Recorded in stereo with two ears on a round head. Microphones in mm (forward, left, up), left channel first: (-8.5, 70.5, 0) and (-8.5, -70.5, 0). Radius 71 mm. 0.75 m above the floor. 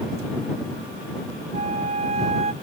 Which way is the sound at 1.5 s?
45° right (ahead or behind).